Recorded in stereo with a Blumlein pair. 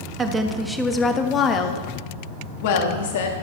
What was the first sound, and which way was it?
A woman speaking, 15° right.